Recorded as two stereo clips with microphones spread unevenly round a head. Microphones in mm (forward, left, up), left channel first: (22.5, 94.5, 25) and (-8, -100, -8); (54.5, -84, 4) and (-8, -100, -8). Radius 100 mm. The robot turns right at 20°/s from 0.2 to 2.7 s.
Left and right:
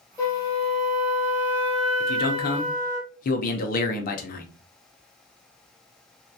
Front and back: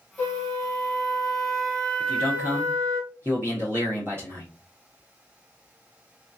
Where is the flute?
25° left, 1.2 m; by 3.0 s 75° left, 1.2 m.